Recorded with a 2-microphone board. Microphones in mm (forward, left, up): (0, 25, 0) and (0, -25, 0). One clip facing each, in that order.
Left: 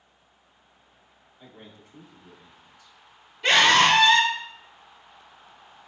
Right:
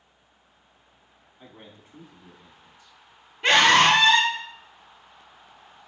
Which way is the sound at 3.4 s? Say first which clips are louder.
Right 1 dB; 30° right (ahead or behind).